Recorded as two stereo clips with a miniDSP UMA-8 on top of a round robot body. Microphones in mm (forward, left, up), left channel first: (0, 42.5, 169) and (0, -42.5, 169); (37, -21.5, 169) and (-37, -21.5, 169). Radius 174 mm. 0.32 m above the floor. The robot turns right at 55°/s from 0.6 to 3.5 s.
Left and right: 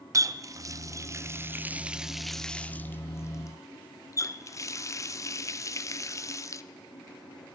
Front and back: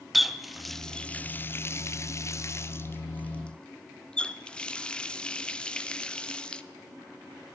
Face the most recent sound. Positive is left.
turn(degrees=70)